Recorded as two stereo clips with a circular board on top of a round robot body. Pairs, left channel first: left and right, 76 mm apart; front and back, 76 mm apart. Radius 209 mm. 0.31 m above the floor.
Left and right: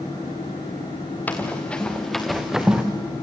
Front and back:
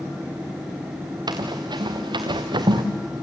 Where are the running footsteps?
160° left, 3 m; by 2.8 s 165° right, 2.5 m.